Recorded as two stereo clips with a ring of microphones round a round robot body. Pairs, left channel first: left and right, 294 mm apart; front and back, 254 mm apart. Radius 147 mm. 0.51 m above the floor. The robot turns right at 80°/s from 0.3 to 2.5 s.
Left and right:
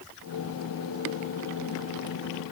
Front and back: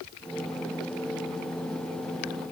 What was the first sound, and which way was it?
Only background noise.